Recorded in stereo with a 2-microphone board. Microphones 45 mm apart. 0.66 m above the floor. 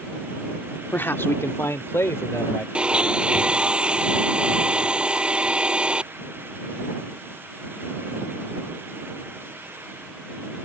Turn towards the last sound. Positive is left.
turn(degrees=-25)  # may be behind; listen again after turning